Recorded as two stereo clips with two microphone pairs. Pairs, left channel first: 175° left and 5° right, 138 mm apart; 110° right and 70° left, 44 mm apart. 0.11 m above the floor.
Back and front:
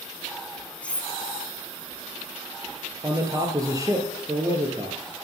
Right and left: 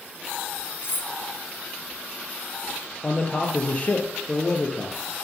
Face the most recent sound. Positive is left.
turn(degrees=-60)